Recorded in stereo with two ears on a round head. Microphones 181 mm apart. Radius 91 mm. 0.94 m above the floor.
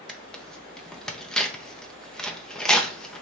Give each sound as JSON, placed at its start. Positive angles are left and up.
{"t": 0.1, "sound": "tearing paper", "side_deg": 5, "distance_m": 0.5}